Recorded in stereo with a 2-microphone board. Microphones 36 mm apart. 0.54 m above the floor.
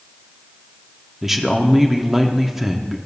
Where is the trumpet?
I don't hear a trumpet.